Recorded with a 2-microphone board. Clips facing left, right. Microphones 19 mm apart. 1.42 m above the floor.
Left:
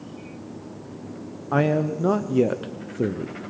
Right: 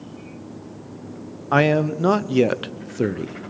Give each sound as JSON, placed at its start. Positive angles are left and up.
{"t": 1.5, "sound": "a man speaking", "side_deg": -55, "distance_m": 0.6}